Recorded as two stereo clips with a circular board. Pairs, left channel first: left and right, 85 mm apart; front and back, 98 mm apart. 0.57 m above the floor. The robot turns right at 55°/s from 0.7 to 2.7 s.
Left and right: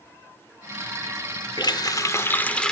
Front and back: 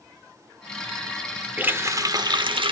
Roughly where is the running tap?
Left.